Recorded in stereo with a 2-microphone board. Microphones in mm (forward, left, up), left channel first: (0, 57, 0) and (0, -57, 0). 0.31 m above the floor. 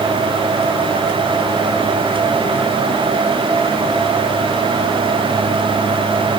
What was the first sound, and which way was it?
Only background noise.